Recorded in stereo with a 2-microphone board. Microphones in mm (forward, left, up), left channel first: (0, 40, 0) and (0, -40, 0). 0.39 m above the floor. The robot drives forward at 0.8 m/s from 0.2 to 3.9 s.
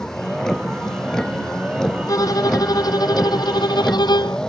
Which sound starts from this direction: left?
A violin, at 2.1 s.